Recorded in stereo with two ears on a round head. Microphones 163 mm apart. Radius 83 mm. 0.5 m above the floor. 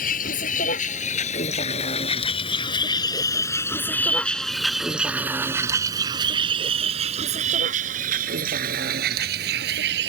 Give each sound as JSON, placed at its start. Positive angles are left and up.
{"t": 0.0, "sound": "a vehicle", "side_deg": 45}